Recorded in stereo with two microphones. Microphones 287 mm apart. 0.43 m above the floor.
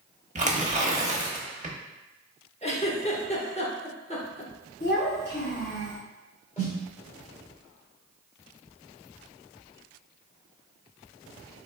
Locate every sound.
0.3 s tearing paper: 25° right (ahead or behind), 0.7 m
2.6 s a giggle: 20° left (ahead or behind), 0.8 m
4.8 s a child speaking: 40° left (ahead or behind), 1.7 m
6.6 s a snare drum: 25° left (ahead or behind), 1.9 m